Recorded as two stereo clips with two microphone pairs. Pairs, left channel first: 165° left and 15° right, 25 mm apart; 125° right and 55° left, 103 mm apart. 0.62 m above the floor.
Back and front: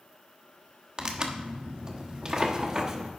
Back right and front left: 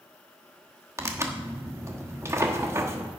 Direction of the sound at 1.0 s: 25° left.